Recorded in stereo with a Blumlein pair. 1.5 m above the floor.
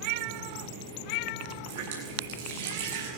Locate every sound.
1.7 s a running tap: 55° right, 10 m